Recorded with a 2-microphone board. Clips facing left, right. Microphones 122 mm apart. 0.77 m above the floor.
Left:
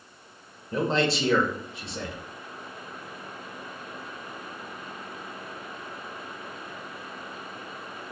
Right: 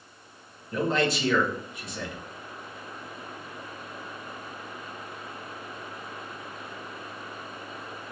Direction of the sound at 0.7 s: 30° left (ahead or behind).